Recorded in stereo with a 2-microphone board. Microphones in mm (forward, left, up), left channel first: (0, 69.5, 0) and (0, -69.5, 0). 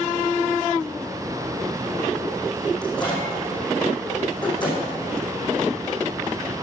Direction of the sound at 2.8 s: 35° left (ahead or behind).